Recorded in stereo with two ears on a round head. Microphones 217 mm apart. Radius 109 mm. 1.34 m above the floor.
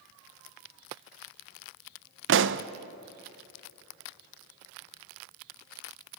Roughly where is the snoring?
I don't hear snoring.